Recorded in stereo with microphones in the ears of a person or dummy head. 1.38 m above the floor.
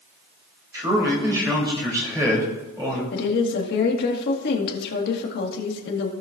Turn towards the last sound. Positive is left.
turn(degrees=70)  # may be behind; listen again after turning